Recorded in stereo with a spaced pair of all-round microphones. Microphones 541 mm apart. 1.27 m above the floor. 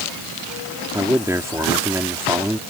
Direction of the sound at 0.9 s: 5° right (ahead or behind).